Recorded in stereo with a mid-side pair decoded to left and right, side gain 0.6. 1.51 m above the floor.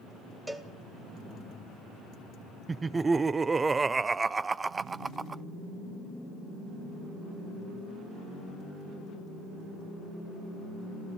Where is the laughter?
25° right, 0.7 m.